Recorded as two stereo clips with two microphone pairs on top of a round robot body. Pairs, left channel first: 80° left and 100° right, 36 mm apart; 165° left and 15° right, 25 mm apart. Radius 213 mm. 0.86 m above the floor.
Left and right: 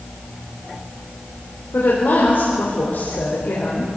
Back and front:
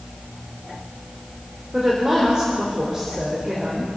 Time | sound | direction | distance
1.7 | a woman speaking | 40° left | 4.5 m